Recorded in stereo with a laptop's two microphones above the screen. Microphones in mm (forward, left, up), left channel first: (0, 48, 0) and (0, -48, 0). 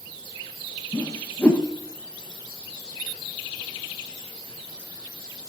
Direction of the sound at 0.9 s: 15° left (ahead or behind).